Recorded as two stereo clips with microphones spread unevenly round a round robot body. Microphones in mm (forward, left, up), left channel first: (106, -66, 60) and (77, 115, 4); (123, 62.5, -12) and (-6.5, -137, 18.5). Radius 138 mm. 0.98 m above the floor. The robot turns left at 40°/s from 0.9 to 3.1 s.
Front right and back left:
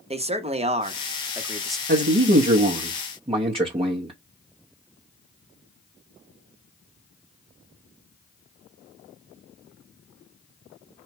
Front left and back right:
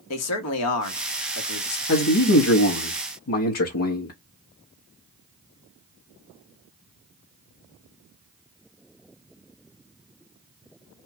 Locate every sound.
0.1 s a man speaking: 45° left, 1.1 m; by 1.8 s 10° left, 1.1 m
1.9 s a man speaking: 90° left, 1.0 m; by 4.1 s 40° left, 1.0 m